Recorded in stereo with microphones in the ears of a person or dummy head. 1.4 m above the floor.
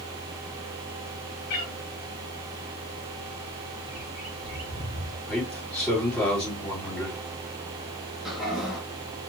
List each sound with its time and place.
1.5 s a cat meowing: 55° left (ahead or behind), 1.8 m
3.8 s a bird: 5° right (ahead or behind), 2.5 m
5.3 s a man speaking: 5° left (ahead or behind), 2.5 m
8.2 s a toilet flushing: 5° right (ahead or behind), 1.4 m